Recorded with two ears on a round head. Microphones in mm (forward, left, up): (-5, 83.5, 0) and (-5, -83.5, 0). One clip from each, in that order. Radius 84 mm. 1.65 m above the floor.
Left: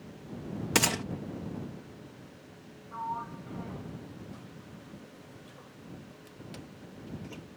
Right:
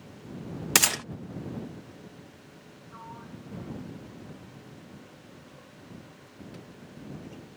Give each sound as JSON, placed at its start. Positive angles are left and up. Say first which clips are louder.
{"t": 0.8, "sound": "a gunshot", "louder": "right 3 dB", "side_deg": -45}
{"t": 2.9, "sound": "a sliding door", "louder": "left 10 dB", "side_deg": 45}